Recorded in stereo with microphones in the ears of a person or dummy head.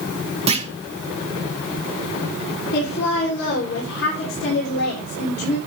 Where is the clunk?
30° right (ahead or behind), 0.9 m.